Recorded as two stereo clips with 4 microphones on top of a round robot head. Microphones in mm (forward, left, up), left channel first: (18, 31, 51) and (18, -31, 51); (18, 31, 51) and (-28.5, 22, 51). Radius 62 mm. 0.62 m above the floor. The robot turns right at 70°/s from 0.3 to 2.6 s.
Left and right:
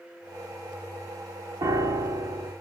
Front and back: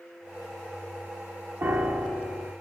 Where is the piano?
120° right, 0.8 m; by 2.5 s 55° right, 0.8 m.